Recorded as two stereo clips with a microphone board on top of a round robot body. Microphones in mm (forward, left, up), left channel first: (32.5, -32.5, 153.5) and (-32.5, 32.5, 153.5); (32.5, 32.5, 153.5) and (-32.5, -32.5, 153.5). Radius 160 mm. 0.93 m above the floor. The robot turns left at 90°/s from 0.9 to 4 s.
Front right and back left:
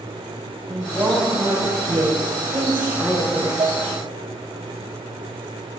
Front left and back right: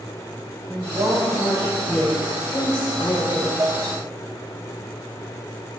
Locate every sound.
0.7 s a woman speaking: 125° right, 4.5 m; by 3.5 s 5° left, 4.5 m
3.6 s dishes clattering: 170° left, 0.6 m; by 3.8 s 145° left, 0.6 m